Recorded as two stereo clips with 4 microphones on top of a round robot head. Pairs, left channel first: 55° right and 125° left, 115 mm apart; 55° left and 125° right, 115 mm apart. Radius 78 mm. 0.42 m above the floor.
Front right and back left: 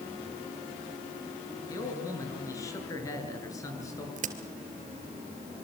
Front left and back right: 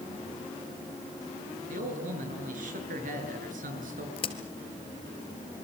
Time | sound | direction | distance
1.7 | a man speaking | 120° right | 7 m
4.2 | a crack | 100° left | 2.5 m